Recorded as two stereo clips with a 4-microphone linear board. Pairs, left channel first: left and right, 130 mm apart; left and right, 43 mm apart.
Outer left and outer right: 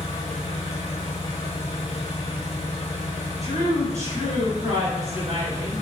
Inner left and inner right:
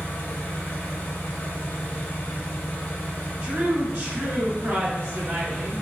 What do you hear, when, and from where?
0.0 s an engine running: 55° left (ahead or behind), 1.5 m
3.4 s a woman speaking: 30° right (ahead or behind), 1.4 m